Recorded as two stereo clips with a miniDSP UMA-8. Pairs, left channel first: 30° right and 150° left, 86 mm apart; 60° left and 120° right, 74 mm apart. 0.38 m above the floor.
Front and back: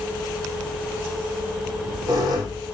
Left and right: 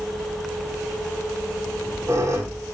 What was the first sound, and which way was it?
A squeak, 170° right.